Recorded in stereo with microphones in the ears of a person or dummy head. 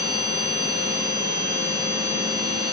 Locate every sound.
0.0 s a machine running: 15° right (ahead or behind), 0.7 m